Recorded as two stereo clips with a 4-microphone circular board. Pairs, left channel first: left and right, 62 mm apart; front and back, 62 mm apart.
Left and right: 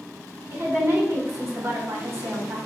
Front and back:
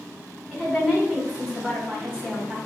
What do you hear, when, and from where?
0.5 s a woman speaking: 105° right, 1.8 m